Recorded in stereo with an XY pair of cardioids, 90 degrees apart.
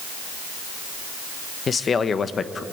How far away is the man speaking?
About 1.4 m.